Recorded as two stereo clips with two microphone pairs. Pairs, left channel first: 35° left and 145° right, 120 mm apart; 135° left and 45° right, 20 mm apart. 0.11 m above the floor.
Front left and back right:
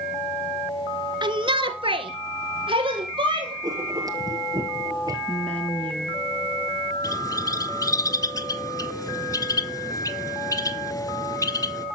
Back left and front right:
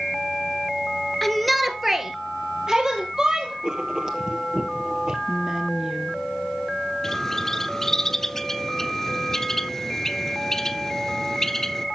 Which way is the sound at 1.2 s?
155° right.